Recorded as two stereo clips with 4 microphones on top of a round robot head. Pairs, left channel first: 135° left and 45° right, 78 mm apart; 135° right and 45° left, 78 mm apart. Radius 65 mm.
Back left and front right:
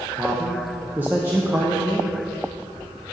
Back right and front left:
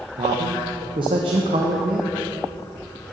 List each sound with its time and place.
0.2 s a man speaking: 25° left, 0.8 m